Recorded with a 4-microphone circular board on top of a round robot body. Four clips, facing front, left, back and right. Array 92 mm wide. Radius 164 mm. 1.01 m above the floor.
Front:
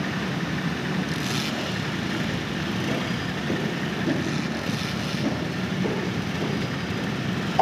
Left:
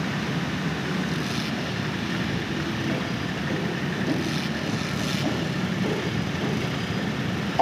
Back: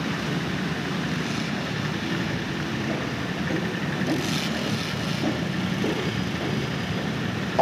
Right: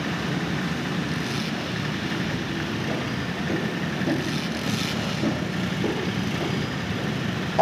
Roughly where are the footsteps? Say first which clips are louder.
Even, even; ahead.